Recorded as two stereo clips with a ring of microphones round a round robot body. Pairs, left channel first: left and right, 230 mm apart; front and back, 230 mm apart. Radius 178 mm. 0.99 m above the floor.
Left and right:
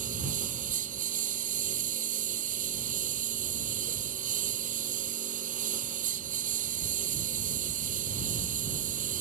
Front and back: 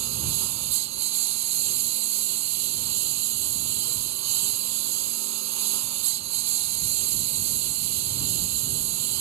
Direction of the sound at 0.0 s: 160° right.